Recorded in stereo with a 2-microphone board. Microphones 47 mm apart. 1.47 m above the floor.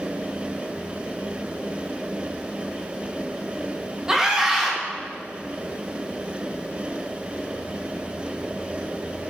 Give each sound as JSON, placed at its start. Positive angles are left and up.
{"t": 4.1, "sound": "a scream", "side_deg": -15, "distance_m": 2.5}